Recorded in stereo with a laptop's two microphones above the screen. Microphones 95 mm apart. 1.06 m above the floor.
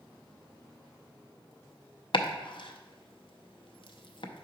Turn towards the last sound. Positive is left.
turn(degrees=65)  # may be behind; listen again after turning